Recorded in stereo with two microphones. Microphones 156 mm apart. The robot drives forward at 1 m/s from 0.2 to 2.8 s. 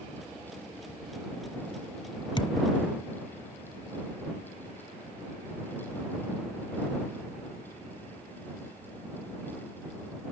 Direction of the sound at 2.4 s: 30° left (ahead or behind).